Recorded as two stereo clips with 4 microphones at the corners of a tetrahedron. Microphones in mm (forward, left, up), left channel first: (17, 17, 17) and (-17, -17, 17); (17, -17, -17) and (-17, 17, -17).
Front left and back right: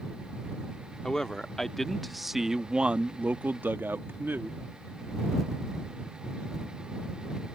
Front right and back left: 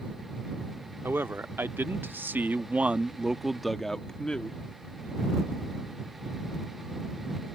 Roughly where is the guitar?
I don't hear a guitar.